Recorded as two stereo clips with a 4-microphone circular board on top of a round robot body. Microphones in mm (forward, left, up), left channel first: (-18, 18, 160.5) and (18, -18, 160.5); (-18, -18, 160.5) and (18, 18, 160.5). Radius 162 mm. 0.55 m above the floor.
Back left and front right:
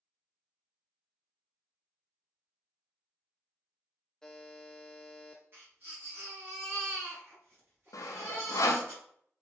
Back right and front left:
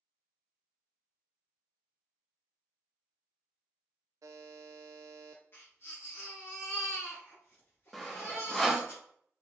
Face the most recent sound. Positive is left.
turn(degrees=140)